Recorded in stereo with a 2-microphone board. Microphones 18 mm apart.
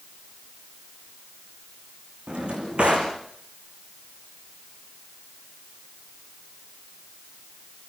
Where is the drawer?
75° right (ahead or behind), 4 m.